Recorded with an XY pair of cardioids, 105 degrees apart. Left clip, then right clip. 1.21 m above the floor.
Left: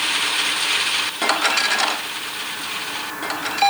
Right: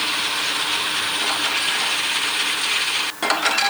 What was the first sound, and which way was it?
Only background noise.